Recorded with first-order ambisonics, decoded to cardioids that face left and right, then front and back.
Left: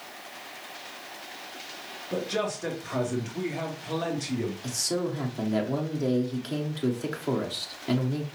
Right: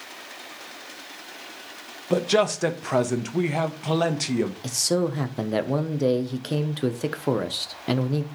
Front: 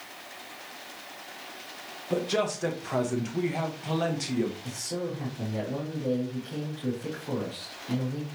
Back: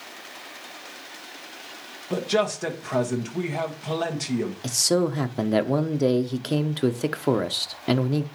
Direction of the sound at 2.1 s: 100° right.